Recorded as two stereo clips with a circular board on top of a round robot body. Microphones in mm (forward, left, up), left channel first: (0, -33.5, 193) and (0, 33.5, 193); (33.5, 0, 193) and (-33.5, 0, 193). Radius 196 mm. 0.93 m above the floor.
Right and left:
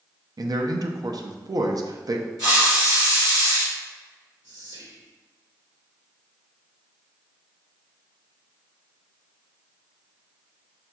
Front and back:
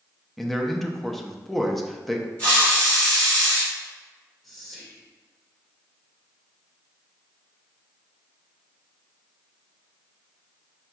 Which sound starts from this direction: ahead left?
A hiss, at 2.4 s.